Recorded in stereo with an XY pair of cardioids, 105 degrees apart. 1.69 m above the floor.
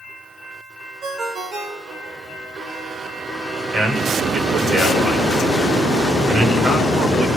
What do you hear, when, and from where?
1.0 s a ringtone: 65° right, 5 m
3.7 s a man speaking: 45° right, 8 m